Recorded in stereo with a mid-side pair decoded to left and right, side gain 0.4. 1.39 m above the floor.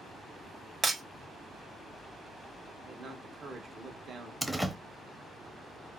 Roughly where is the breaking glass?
Ahead right.